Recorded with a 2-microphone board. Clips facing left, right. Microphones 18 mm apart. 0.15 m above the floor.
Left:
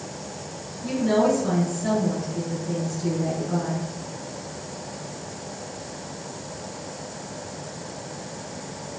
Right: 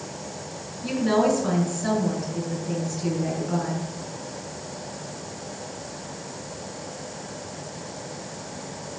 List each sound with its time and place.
0.8 s a woman speaking: 30° right (ahead or behind), 1.2 m